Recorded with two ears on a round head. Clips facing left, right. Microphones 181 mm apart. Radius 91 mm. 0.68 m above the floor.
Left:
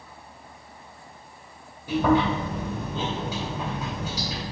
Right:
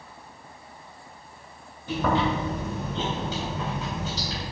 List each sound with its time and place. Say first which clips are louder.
1.9 s chewing: left 3 dB; 10° left (ahead or behind), 2.5 m